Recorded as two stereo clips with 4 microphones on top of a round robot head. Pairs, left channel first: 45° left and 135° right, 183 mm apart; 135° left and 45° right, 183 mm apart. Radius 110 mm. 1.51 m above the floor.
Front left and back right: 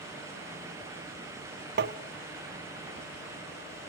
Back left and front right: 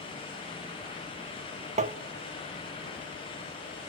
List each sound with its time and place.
1.8 s tapping: 100° right, 1.2 m